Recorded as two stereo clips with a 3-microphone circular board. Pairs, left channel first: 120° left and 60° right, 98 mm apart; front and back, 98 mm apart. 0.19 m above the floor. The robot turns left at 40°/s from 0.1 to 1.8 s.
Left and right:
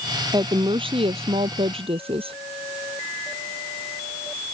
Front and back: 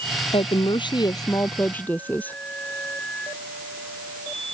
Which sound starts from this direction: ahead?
A woman speaking, at 0.3 s.